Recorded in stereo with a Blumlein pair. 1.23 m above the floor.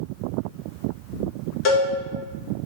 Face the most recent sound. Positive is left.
turn(degrees=35)